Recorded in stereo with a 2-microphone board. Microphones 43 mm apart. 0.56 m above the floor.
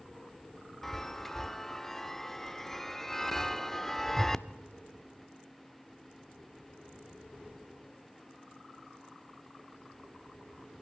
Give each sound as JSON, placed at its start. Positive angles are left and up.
{"t": 0.8, "sound": "a chime", "side_deg": 10, "distance_m": 0.5}